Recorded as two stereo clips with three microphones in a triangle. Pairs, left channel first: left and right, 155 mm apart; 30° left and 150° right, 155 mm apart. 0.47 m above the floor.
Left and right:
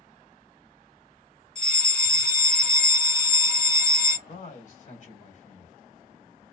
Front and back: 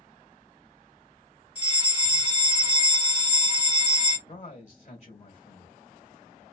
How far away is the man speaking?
About 1.8 m.